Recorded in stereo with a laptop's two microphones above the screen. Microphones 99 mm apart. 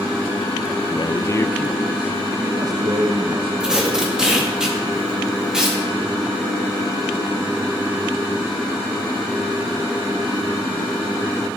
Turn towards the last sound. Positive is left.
turn(degrees=-5)  # may be behind; listen again after turning